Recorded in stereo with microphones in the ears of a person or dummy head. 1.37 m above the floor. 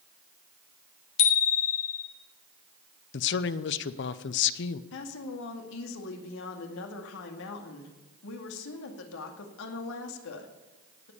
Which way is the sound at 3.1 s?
60° left (ahead or behind).